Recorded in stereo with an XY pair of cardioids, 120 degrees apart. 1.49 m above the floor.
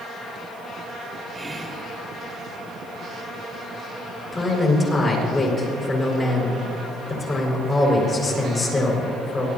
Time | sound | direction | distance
1.3 | whispering | straight ahead | 1.7 m
4.3 | a man speaking | 30° left | 6 m